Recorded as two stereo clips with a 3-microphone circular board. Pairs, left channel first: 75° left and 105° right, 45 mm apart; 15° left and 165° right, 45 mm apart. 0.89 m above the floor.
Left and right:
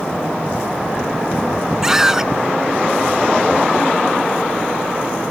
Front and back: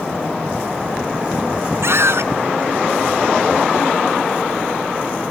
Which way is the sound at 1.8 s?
Straight behind.